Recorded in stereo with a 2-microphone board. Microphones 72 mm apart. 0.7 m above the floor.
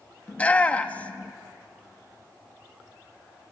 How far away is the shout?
About 1.0 m.